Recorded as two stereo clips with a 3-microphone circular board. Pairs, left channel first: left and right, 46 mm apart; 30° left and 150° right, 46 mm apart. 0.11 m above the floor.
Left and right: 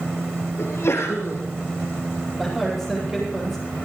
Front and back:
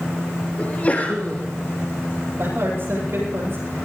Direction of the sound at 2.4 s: 175° right.